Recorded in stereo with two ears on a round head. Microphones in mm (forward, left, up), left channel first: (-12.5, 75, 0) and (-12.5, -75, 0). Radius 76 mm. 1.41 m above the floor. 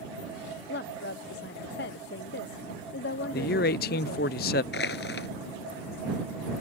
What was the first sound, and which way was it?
A woman speaking, 70° left (ahead or behind).